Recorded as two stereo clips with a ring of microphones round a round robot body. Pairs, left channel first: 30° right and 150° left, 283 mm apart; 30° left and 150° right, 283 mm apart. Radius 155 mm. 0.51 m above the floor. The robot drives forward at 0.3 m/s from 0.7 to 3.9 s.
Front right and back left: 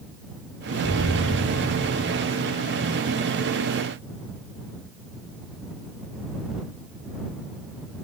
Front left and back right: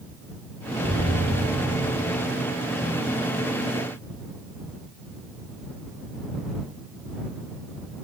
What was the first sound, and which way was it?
An explosion, 130° left.